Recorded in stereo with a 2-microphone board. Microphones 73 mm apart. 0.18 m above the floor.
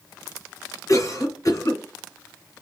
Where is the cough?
45° left (ahead or behind), 2 m.